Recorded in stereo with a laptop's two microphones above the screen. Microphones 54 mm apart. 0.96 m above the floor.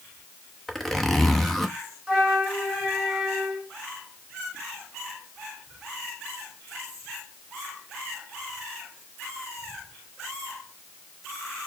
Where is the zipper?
Centre (ahead or behind), 0.8 m.